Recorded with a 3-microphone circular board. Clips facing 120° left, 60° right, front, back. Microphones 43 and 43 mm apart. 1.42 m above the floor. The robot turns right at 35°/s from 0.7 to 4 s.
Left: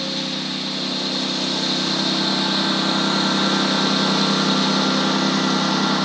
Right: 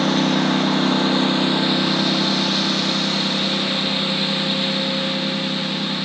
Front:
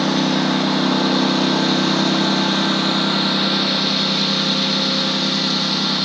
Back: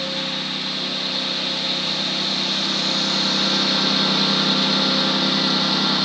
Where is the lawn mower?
20° right; by 6.0 s 95° left.